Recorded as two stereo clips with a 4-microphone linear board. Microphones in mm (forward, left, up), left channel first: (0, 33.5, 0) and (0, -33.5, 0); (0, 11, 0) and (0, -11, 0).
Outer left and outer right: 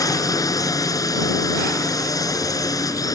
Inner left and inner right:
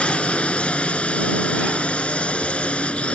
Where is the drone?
60° left (ahead or behind).